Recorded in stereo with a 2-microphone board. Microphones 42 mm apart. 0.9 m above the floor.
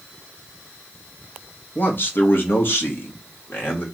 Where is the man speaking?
45° left (ahead or behind), 0.9 m; by 3.9 s 50° left (ahead or behind), 1.6 m.